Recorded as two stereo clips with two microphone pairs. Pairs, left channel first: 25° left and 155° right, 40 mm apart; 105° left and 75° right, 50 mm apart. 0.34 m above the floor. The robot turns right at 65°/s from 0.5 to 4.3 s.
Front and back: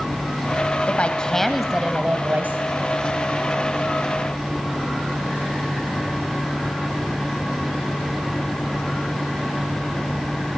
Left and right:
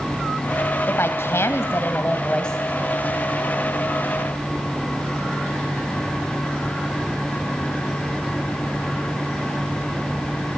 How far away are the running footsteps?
No running footsteps in this recording.